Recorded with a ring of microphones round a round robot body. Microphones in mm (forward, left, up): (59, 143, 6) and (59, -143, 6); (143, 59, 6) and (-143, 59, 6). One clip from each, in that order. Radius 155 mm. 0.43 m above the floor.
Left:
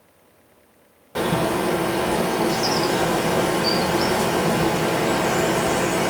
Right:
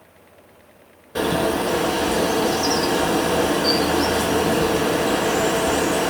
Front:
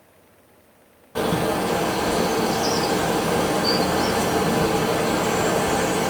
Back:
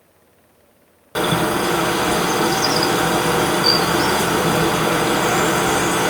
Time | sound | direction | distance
1.1 | a bird | 165° left | 1.3 m